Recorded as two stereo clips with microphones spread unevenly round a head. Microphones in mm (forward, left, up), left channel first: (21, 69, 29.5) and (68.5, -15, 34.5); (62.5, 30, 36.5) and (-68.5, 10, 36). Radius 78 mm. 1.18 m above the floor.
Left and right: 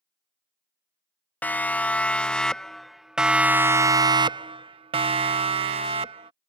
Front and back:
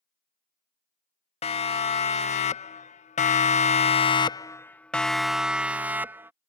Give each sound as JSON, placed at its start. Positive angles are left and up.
{"t": 1.4, "sound": "a siren", "azimuth_deg": 50}